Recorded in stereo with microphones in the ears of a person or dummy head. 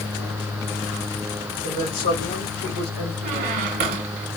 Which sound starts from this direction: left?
A woman speaking, at 1.6 s.